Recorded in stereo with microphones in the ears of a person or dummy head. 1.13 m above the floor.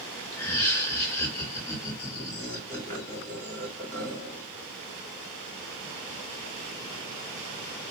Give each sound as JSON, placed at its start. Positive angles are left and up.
{"t": 0.3, "sound": "laughter", "side_deg": 15, "distance_m": 1.6}